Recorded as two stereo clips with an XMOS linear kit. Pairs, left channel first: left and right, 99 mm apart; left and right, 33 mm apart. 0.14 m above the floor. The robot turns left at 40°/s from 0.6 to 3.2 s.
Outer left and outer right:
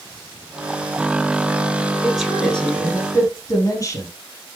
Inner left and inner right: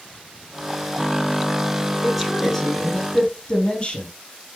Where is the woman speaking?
170° right, 3.5 m; by 4.1 s 145° left, 3.5 m.